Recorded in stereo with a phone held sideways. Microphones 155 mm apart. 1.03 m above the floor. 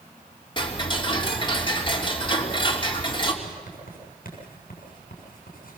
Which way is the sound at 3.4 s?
70° left (ahead or behind).